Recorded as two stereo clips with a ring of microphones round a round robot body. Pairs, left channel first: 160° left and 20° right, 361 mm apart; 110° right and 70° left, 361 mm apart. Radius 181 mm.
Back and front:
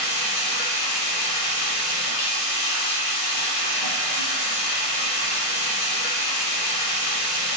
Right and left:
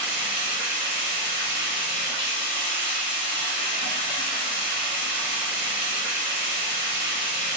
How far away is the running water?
About 1.6 m.